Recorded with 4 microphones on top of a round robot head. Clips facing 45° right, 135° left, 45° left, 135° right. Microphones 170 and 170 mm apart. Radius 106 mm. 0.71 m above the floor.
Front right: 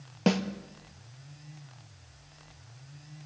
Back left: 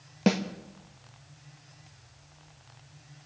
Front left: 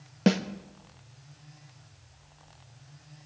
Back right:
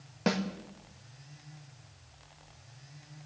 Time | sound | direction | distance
0.3 | a snare drum | 60° left | 1.2 m